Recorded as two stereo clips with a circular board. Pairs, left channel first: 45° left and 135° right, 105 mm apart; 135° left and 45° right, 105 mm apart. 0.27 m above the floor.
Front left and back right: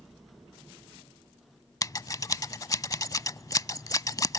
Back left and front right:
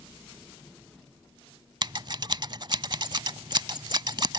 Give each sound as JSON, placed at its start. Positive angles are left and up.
{"t": 1.8, "sound": "scissors", "azimuth_deg": -5}